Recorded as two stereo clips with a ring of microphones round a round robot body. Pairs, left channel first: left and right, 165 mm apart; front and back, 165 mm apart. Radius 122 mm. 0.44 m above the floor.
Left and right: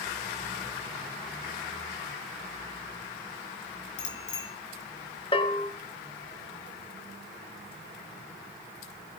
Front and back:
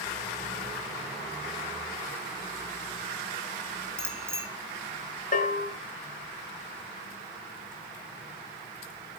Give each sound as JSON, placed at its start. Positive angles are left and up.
{"t": 4.0, "sound": "a bicycle bell", "azimuth_deg": 105, "distance_m": 4.5}
{"t": 5.3, "sound": "a bell", "azimuth_deg": 35, "distance_m": 3.0}